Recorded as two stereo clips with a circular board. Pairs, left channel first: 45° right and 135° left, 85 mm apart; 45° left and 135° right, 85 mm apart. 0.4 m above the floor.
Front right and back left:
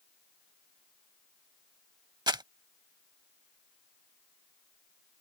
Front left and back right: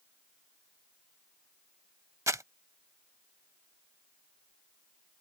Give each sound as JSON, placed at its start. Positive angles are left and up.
{"t": 2.3, "sound": "crumpling", "azimuth_deg": 170}